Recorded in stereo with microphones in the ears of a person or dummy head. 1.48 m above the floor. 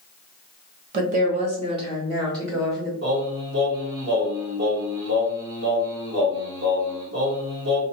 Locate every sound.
0.9 s a woman speaking: 50° right (ahead or behind), 0.9 m; by 2.9 s 15° right (ahead or behind), 1.5 m
3.0 s singing: 85° right, 1.6 m